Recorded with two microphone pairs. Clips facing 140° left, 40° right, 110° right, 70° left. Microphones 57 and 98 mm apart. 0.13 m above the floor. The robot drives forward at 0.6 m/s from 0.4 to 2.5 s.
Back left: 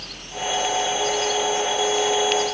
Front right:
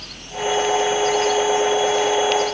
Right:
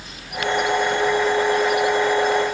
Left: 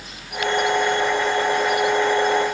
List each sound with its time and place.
Only background noise.